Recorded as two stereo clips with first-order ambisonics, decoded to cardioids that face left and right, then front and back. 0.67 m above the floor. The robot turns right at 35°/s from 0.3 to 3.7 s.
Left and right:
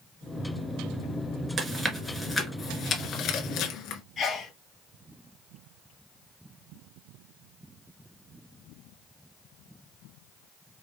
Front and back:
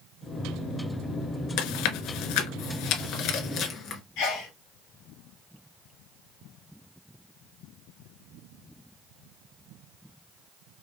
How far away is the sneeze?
About 2 m.